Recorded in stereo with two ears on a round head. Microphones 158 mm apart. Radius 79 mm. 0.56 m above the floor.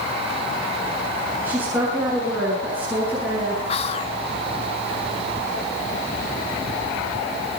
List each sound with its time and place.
1.4 s a woman speaking: 10° right (ahead or behind), 7.5 m
3.7 s whispering: 35° left (ahead or behind), 0.9 m